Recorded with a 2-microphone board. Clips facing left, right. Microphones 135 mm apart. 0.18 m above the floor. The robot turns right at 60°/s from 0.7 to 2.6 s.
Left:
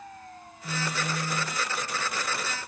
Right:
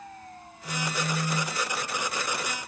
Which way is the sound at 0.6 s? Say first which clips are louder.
Right 1 dB; 150° left.